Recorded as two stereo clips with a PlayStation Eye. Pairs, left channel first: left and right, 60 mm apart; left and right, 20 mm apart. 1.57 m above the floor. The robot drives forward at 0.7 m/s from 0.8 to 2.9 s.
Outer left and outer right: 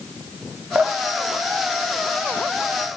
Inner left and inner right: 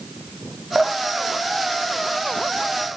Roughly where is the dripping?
Right.